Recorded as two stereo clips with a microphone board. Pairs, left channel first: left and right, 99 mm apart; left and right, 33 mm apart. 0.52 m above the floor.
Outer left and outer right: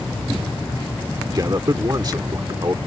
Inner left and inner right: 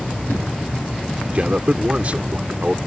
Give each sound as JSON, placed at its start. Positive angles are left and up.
{"t": 1.3, "sound": "a man speaking", "side_deg": -40}